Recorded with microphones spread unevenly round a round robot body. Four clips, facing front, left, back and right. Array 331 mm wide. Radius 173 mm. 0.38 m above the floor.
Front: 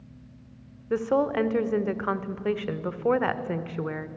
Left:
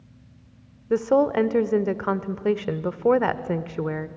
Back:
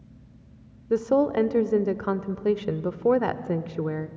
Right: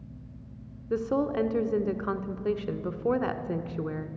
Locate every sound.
0.9 s a woman speaking: 135° left, 0.9 m